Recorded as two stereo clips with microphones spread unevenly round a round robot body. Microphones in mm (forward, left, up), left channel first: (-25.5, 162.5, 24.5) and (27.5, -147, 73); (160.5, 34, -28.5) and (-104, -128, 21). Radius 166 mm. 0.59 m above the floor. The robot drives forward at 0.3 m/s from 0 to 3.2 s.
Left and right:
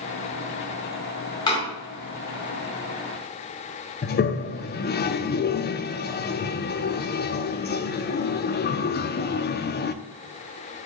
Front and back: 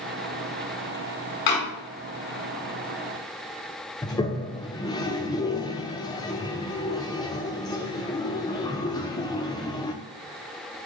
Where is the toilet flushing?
90° left, 0.7 m.